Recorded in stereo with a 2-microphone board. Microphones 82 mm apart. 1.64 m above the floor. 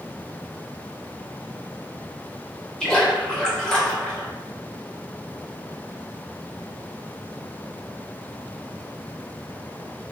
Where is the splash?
10° left (ahead or behind), 1.1 m.